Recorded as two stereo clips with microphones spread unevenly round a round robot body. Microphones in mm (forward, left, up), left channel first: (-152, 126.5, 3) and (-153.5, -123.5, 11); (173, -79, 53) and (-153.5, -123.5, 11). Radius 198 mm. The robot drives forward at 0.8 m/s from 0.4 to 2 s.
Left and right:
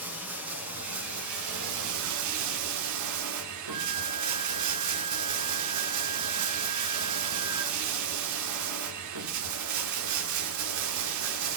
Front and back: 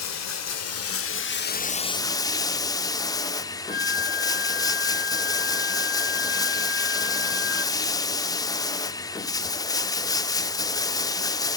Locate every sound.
0.0 s running water: 35° right, 2.0 m; by 11.6 s 70° right, 1.2 m
3.7 s a flute: 60° right, 1.4 m